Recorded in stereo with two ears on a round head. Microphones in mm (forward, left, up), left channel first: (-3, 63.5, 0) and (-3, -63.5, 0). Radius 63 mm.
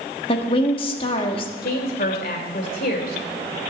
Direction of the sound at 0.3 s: 40° left (ahead or behind).